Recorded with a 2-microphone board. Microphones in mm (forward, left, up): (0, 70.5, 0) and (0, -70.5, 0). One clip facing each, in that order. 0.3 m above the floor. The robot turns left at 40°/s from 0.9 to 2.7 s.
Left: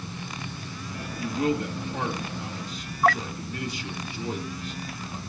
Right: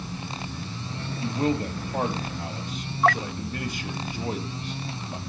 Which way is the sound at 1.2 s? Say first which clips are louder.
Even; 30° right (ahead or behind).